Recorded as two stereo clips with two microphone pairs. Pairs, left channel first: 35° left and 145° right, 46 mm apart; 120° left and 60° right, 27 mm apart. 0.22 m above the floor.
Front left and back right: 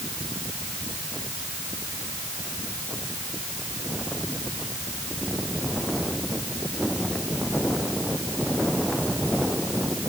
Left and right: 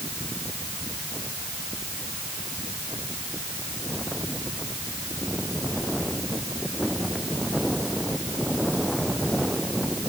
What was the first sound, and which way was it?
Only background noise.